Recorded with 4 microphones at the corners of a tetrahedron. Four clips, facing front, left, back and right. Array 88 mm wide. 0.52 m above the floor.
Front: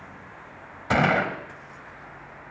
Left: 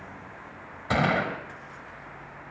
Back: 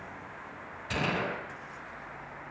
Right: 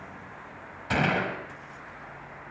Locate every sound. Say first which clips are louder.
0.9 s a gunshot: left 1 dB, front 10 dB; 15° left, 3 m